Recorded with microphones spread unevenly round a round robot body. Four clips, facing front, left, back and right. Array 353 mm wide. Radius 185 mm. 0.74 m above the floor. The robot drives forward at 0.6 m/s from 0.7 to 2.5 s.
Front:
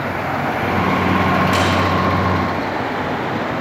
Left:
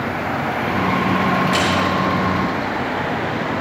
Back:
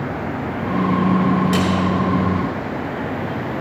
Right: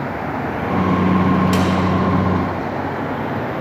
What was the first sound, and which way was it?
A snare drum, 135° right.